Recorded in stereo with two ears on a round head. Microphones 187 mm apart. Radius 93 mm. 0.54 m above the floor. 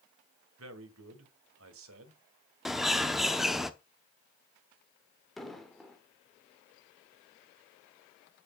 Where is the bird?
Centre (ahead or behind), 0.8 m.